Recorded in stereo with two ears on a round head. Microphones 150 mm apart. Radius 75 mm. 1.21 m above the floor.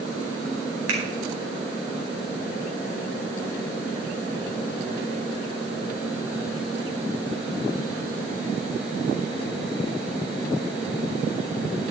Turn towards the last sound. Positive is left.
turn(degrees=-85)